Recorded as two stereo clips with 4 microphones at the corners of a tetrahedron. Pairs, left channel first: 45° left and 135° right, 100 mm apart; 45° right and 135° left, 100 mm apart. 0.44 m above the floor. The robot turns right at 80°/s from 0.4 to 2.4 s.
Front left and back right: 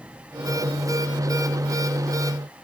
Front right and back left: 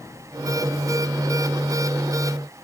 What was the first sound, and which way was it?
Only background noise.